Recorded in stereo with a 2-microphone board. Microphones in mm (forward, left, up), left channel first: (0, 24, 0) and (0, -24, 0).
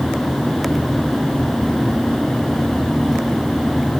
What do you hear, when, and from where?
Only background noise.